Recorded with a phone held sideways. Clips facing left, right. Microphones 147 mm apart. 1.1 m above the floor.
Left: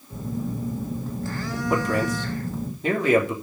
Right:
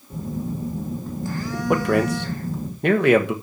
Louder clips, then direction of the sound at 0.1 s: Right 1 dB; 15° right (ahead or behind).